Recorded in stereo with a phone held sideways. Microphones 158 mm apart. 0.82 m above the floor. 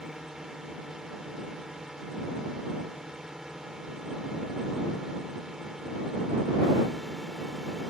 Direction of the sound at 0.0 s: 5° right (ahead or behind).